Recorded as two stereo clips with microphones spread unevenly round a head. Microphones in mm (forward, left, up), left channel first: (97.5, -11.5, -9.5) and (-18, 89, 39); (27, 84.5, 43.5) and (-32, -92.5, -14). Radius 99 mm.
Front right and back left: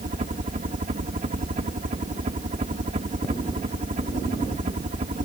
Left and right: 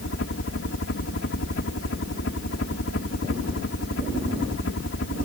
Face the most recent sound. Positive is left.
turn(degrees=95)